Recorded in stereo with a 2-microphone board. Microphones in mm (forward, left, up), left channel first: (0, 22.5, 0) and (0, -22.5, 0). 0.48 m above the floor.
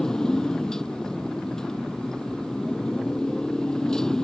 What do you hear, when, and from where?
0.0 s a motorcycle: 15° left (ahead or behind)